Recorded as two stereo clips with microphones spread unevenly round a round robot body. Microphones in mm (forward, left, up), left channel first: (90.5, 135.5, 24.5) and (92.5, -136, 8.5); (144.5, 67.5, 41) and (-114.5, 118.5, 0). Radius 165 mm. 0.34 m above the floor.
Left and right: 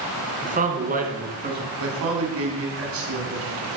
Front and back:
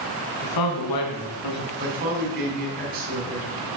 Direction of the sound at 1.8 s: 135° right.